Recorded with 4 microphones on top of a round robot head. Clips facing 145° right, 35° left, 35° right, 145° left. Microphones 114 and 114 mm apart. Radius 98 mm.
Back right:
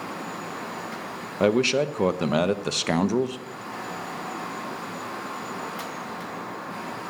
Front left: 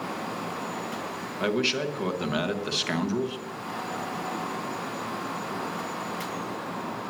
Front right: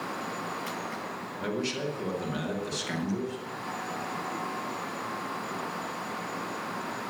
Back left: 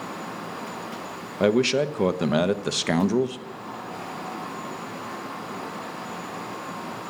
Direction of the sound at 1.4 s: 165° left.